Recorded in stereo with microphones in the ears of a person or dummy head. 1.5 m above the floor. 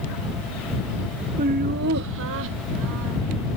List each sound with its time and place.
1.4 s laughter: 40° right (ahead or behind); by 3.2 s 75° right (ahead or behind)